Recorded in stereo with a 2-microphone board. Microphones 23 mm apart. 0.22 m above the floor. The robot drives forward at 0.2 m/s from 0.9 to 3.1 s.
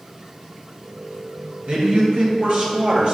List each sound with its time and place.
1.7 s a man speaking: 60° right (ahead or behind), 3 m